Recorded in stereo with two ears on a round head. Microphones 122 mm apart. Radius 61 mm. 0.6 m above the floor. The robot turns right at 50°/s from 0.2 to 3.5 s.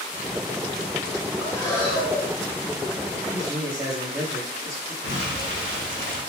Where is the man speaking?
25° right (ahead or behind), 1.2 m.